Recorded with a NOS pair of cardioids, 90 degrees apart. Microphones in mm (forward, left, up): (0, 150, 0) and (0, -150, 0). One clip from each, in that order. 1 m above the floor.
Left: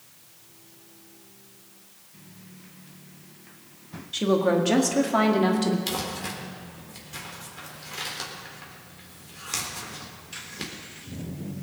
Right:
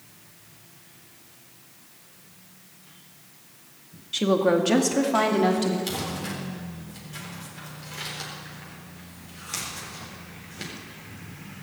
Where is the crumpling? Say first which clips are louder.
Left 1 dB; 20° left, 4 m.